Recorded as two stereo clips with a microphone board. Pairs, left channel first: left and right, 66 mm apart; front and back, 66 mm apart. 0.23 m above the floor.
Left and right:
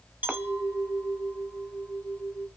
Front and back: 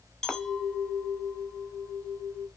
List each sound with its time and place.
0.2 s a clink: 75° right, 0.6 m